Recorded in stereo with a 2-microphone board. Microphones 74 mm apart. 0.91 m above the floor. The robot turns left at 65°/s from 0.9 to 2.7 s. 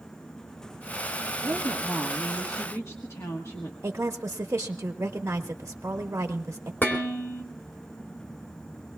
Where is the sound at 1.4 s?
135° right, 1.3 m; by 3.7 s 140° left, 1.3 m.